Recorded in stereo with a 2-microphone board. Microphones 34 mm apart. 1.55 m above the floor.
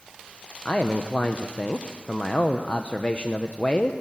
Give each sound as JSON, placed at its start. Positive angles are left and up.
{"t": 0.7, "sound": "a man speaking", "side_deg": 40, "distance_m": 0.9}